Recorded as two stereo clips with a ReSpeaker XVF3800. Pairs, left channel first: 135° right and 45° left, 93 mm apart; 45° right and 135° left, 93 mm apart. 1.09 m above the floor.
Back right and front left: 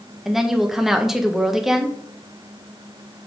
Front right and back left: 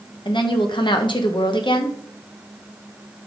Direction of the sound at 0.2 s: 40° right.